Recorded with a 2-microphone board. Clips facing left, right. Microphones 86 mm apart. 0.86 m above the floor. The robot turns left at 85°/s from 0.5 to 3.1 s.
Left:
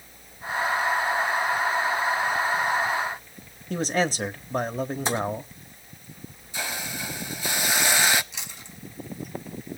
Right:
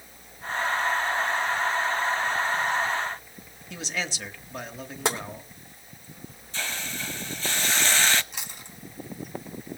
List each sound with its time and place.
3.7 s a man speaking: 40° left (ahead or behind), 1.2 m
5.0 s tapping: 75° right (ahead or behind), 3 m
6.5 s a hiss: 10° left (ahead or behind), 0.6 m
8.3 s chewing: 50° right (ahead or behind), 4 m